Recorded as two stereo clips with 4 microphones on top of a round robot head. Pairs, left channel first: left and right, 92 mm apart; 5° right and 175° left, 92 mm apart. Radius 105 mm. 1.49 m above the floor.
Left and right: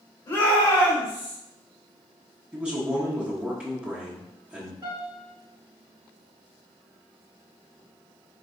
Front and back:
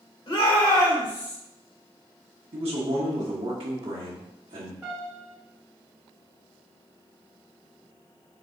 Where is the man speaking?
165° right, 1.0 m.